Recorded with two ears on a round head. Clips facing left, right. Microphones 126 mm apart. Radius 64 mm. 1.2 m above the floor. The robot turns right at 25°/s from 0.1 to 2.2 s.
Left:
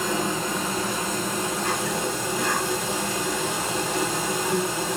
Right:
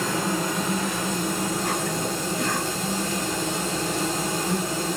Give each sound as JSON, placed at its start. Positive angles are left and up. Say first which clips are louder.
{"t": 0.0, "sound": "an insect", "louder": "even", "azimuth_deg": 15, "distance_m": 1.9}